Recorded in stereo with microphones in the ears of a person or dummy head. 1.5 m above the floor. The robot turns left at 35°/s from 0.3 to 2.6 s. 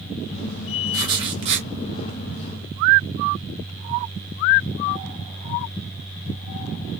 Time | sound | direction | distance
0.9 | writing | 20° right (ahead or behind) | 0.8 m